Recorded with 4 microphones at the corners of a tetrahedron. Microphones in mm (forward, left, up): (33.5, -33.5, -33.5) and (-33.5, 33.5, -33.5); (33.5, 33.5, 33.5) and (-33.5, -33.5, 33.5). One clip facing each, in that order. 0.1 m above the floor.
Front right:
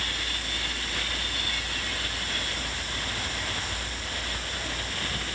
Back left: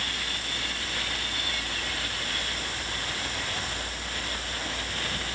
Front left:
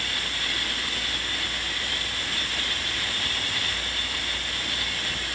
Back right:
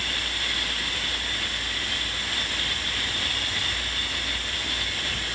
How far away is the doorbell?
No doorbell in this recording.